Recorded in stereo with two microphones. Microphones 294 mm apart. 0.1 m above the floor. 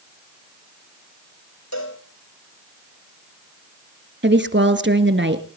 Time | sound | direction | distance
1.7 | a cowbell | 65° left (ahead or behind) | 6 m
4.2 | a woman speaking | 40° right (ahead or behind) | 1.9 m